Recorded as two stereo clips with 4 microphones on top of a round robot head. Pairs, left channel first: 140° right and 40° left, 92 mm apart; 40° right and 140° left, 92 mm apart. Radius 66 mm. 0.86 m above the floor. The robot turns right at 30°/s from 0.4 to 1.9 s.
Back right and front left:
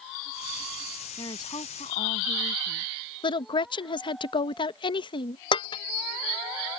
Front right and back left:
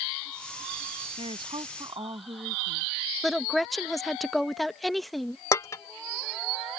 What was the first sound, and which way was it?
A woman speaking, 170° left.